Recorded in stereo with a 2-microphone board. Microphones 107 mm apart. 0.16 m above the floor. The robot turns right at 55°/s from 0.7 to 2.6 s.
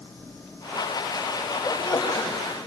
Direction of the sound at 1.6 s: 30° left.